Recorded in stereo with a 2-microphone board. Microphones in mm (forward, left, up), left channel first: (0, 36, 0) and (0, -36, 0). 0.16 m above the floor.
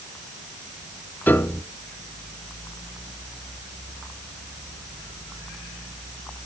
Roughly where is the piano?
Left.